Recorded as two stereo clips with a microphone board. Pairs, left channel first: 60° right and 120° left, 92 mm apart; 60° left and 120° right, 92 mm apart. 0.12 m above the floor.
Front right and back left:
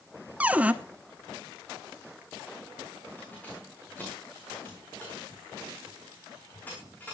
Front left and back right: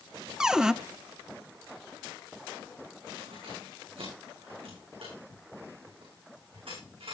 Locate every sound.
0.4 s a cupboard door: 170° left, 0.5 m
3.2 s keys jangling: 130° right, 8 m